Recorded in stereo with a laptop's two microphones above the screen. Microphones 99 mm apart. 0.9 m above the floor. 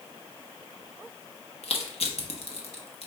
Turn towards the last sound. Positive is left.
turn(degrees=80)